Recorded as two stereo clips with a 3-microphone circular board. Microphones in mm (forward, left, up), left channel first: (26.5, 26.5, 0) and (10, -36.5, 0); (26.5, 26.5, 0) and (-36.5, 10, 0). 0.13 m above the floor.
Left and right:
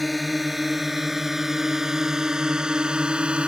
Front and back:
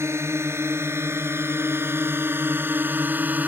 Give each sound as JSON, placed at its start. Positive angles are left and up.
{"t": 0.0, "sound": "a drone", "azimuth_deg": 165}